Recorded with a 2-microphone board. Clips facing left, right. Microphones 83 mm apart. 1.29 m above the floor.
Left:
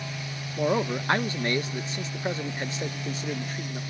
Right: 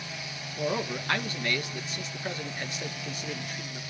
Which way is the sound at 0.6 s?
25° left (ahead or behind).